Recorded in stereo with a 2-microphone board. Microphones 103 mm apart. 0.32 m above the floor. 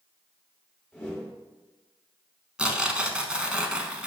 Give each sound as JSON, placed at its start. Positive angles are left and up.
{"t": 0.9, "sound": "a whoosh", "side_deg": 10, "distance_m": 1.4}
{"t": 2.6, "sound": "tearing paper", "side_deg": -10, "distance_m": 0.7}